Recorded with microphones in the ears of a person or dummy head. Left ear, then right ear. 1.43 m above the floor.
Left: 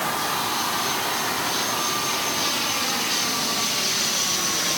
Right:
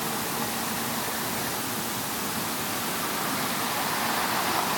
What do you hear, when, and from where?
Only background noise.